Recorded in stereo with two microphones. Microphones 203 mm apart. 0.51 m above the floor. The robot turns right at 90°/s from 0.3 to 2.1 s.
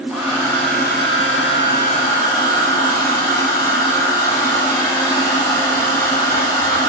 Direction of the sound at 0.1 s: 5° left.